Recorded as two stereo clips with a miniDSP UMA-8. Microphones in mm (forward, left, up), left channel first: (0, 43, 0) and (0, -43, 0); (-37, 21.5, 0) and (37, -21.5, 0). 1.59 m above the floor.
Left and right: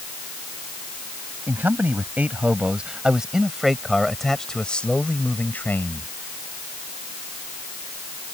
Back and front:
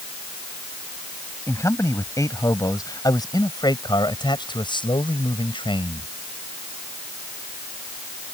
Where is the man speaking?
155° right; by 6.1 s 155° left.